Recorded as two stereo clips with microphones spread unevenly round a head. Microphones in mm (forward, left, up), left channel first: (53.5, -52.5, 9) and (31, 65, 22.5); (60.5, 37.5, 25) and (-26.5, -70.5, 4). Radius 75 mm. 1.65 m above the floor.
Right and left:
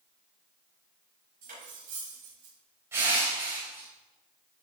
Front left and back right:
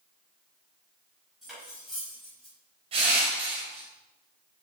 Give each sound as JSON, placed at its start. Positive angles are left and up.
{"t": 1.4, "sound": "cutlery clinking", "azimuth_deg": 140, "distance_m": 5.5}
{"t": 2.9, "sound": "crushing", "azimuth_deg": 175, "distance_m": 3.5}